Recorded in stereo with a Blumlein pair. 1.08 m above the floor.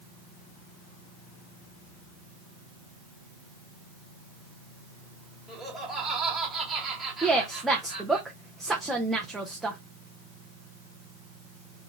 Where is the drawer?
No drawer in this recording.